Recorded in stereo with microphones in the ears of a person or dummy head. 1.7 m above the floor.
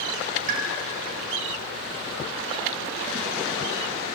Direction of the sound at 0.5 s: 60° right (ahead or behind).